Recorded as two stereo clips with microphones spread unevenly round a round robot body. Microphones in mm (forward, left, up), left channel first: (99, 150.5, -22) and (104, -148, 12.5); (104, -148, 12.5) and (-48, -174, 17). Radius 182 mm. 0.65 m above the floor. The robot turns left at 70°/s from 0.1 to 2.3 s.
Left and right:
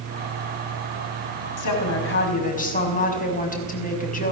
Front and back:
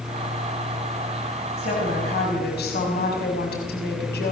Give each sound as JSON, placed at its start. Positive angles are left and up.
{"t": 1.6, "sound": "a woman speaking", "azimuth_deg": 80, "distance_m": 5.5}